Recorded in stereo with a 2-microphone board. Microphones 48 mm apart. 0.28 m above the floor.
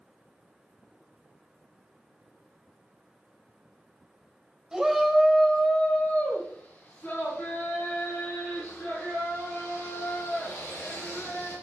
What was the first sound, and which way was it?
A shout, 15° right (ahead or behind).